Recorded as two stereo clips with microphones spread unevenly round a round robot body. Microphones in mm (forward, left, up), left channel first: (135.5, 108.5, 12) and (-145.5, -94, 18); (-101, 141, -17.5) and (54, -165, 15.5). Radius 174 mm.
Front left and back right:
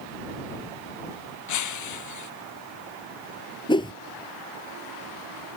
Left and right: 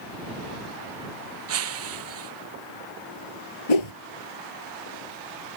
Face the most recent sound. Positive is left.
turn(degrees=115)